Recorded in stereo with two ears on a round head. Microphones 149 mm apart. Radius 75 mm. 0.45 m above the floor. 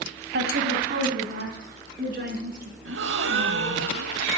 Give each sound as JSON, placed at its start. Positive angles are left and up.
{"t": 0.3, "sound": "a woman speaking", "side_deg": -70, "distance_m": 2.0}
{"t": 2.9, "sound": "a gasp", "side_deg": -75, "distance_m": 0.8}